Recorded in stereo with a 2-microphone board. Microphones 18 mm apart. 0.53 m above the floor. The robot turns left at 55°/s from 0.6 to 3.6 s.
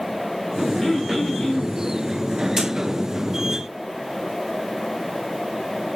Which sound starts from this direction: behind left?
Throat clearing, at 0.8 s.